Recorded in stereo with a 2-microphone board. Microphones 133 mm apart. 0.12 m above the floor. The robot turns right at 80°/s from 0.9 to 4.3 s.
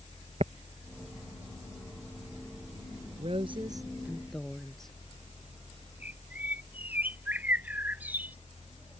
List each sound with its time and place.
0.4 s tapping: 60° right (ahead or behind)
3.2 s a woman speaking: 85° right; by 5.0 s 5° left
6.0 s a bird: 15° right (ahead or behind)